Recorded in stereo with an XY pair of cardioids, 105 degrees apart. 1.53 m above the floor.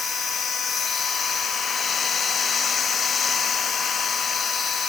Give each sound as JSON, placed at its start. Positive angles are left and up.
{"t": 0.0, "sound": "a machine running", "azimuth_deg": 45}